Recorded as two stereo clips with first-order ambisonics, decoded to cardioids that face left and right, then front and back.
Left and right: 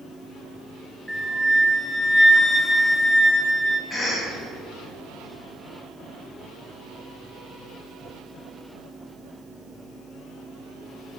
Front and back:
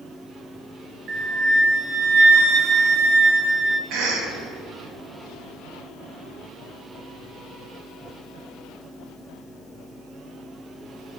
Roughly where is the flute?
Behind.